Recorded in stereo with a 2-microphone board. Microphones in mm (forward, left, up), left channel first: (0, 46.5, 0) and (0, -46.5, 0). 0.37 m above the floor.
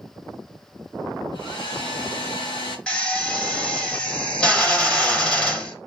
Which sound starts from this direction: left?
A hair dryer, at 1.3 s.